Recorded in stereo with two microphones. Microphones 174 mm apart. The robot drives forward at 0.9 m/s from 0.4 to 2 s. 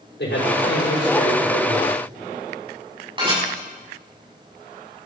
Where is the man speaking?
85° left, 5.5 m; by 2.0 s 75° left (ahead or behind), 5.5 m.